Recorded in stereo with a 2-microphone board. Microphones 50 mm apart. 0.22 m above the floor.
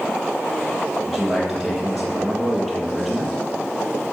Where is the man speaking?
5° left (ahead or behind), 5.5 m.